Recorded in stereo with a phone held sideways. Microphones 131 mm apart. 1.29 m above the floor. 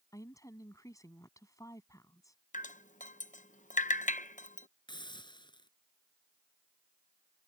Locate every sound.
0.1 s a woman speaking: 25° left (ahead or behind)
2.5 s dripping: 90° left
4.9 s a hiss: 40° left (ahead or behind)